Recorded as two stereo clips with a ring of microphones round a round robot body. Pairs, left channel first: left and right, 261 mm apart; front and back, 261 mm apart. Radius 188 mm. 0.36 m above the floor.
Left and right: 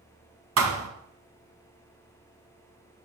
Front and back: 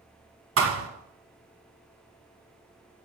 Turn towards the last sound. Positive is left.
turn(degrees=-130)